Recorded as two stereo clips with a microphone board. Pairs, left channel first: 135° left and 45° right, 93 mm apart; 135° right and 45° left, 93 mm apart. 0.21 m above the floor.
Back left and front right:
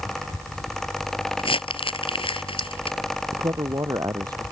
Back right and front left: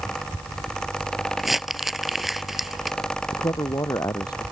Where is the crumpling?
135° left.